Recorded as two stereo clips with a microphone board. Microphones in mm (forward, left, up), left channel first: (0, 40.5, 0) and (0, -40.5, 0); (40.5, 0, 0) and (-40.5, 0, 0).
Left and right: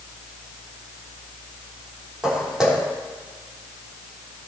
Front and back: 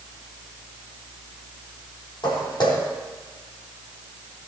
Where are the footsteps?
10° right, 3.5 m.